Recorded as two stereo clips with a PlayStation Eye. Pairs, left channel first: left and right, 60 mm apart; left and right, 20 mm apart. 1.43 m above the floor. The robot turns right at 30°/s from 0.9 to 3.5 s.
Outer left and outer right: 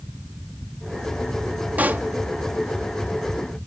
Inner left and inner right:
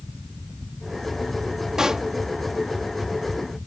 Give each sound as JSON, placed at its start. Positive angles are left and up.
{"t": 1.8, "sound": "a pop", "side_deg": -30}